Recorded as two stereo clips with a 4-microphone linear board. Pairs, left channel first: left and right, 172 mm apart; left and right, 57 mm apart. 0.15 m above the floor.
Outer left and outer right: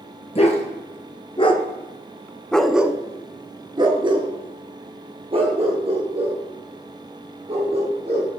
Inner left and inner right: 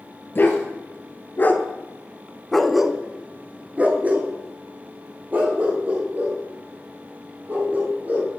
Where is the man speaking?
No man speaking in this recording.